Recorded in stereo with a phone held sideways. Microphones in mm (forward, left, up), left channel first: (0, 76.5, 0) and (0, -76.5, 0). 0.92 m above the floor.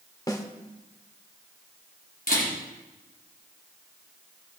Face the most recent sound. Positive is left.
turn(degrees=85)